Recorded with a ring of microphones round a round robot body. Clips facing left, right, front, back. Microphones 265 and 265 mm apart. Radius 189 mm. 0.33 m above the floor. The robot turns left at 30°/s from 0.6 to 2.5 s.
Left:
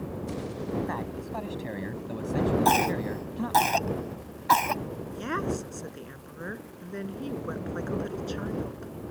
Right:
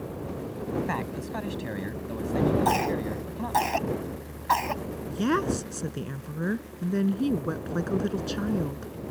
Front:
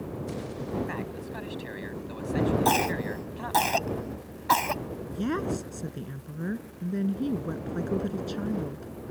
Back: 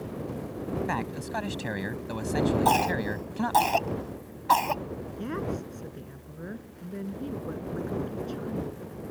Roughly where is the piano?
No piano in this recording.